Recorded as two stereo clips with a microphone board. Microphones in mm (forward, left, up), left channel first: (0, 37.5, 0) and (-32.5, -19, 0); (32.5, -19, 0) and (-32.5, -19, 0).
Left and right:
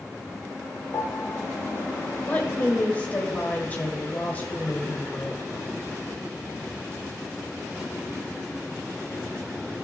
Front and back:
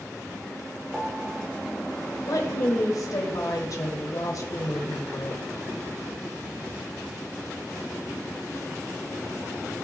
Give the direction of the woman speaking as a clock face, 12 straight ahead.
12 o'clock.